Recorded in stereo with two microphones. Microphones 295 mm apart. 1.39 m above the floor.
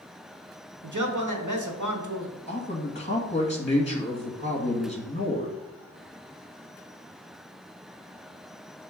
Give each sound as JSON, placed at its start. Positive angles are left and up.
{"t": 0.8, "sound": "a man speaking", "side_deg": -80, "distance_m": 1.1}
{"t": 2.5, "sound": "a man speaking", "side_deg": 20, "distance_m": 1.6}